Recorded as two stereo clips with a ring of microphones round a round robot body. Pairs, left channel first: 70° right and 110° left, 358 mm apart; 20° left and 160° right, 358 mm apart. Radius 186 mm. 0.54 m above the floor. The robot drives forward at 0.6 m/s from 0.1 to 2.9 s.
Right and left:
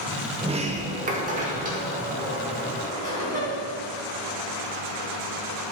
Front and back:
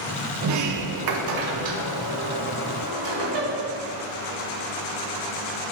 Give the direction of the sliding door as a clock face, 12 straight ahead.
6 o'clock.